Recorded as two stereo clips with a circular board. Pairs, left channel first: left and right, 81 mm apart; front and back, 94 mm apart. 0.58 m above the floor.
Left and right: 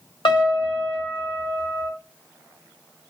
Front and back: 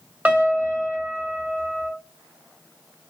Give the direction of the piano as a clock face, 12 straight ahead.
8 o'clock.